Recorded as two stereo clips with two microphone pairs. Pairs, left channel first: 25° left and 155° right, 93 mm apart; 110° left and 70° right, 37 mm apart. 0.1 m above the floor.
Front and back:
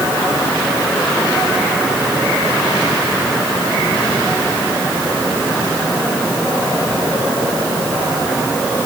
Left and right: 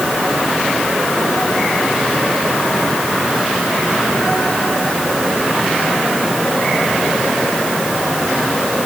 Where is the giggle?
No giggle in this recording.